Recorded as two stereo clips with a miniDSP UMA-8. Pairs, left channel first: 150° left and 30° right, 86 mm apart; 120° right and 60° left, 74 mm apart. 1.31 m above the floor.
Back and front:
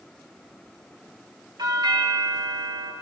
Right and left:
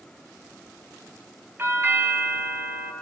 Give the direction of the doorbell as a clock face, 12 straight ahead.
12 o'clock.